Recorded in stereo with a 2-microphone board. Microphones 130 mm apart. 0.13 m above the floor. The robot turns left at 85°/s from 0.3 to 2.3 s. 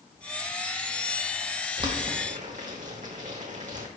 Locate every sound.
1.8 s boiling: 35° right (ahead or behind), 3.5 m; by 3.9 s 75° right (ahead or behind), 3.5 m